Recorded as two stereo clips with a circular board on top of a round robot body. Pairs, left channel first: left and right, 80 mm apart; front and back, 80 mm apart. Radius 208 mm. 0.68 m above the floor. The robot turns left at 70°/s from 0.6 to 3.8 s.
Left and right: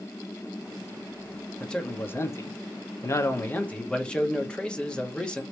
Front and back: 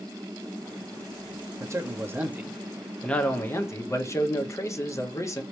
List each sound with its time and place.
1.6 s a man speaking: 170° left, 1.3 m; by 5.4 s 20° left, 1.3 m